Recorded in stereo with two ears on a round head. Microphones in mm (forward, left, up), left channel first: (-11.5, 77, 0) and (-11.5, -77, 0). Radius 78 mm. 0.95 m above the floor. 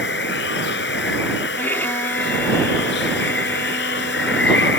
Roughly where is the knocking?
I don't hear knocking.